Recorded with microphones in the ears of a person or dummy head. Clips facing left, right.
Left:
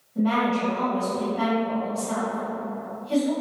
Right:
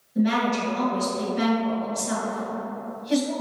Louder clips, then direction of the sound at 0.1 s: Even; 20° right (ahead or behind).